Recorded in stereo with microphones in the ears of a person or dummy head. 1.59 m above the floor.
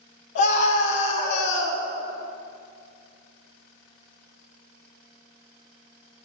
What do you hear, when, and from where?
0.3 s a scream: 65° left (ahead or behind), 1.7 m